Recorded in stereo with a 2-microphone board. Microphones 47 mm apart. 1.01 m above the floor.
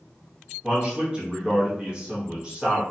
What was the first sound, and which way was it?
A man speaking, 20° right (ahead or behind).